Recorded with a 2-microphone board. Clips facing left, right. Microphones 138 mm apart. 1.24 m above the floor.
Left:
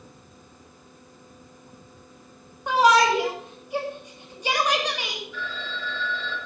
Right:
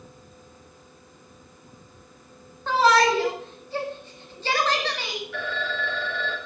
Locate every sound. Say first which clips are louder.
2.7 s a shout: left 1 dB; 15° left (ahead or behind), 5 m
5.3 s a phone ringing: right 5 dB; 80° right, 4.5 m